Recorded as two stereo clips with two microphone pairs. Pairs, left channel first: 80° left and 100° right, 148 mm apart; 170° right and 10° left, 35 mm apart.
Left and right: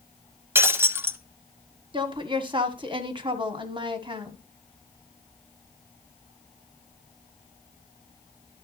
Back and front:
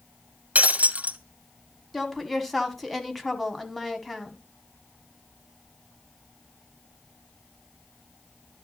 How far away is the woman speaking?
About 1.3 m.